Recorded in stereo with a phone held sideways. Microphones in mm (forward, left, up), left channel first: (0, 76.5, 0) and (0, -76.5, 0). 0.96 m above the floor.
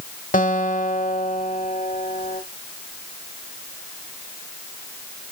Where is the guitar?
60° left (ahead or behind), 1.4 m.